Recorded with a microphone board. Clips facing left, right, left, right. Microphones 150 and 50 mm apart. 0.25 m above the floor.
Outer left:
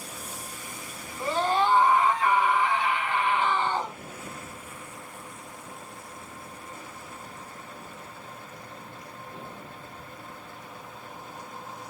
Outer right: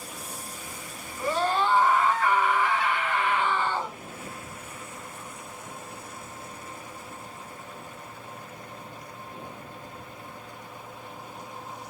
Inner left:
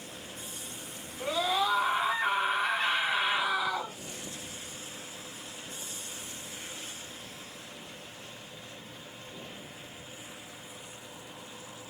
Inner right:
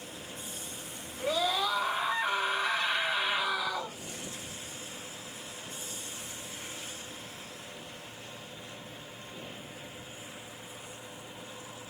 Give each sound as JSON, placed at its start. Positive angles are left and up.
{"t": 1.2, "sound": "a scream", "side_deg": 20, "distance_m": 3.0}